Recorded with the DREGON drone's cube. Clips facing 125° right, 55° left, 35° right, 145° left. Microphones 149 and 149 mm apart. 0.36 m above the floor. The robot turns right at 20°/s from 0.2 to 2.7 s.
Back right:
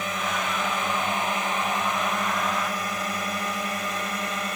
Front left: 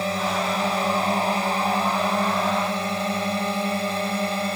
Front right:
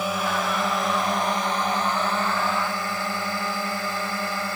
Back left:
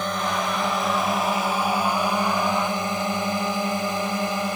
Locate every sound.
0.0 s a drone: 45° left; by 4.6 s 85° left